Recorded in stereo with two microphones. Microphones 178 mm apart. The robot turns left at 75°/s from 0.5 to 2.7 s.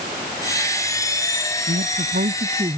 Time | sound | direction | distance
1.7 | a man speaking | 75° right | ?